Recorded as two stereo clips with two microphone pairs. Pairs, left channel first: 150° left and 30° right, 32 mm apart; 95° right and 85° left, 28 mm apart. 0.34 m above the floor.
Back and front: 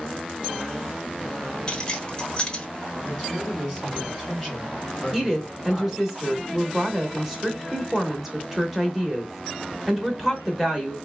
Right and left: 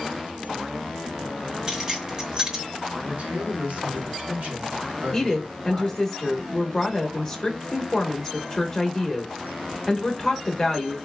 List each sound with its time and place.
1.7 s keys jangling: 130° left, 0.9 m
3.1 s a man speaking: 75° left, 2.5 m
5.1 s a woman speaking: 105° right, 0.8 m